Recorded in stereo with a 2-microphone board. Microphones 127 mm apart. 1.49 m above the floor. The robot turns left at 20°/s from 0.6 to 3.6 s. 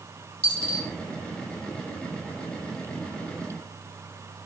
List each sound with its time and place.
0.4 s a dropped coin: 45° left (ahead or behind), 1.6 m